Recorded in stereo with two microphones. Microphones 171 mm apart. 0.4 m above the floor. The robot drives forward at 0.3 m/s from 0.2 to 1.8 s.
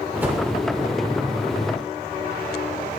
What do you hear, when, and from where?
0.2 s a whoosh: 10° right (ahead or behind), 1.3 m